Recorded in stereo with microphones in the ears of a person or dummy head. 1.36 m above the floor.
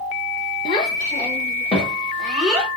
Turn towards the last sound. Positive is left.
turn(degrees=-5)  # may be behind; listen again after turning